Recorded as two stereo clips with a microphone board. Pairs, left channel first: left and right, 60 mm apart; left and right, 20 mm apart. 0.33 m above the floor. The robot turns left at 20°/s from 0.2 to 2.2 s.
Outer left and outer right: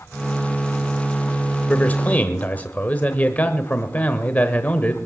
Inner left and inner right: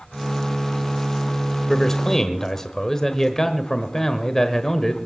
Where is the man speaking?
30° left (ahead or behind), 1.1 m; by 5.0 s 25° left (ahead or behind), 1.1 m.